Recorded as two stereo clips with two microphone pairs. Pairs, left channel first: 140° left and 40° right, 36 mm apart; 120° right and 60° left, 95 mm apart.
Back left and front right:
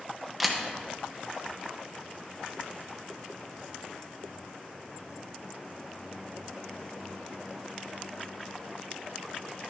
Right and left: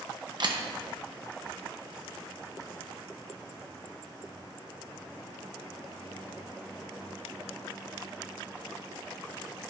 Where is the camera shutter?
50° left, 0.8 m.